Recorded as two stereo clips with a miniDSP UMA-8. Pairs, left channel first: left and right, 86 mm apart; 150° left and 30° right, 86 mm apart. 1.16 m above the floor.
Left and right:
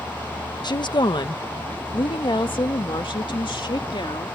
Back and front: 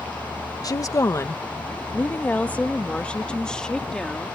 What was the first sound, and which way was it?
A woman speaking, 115° left.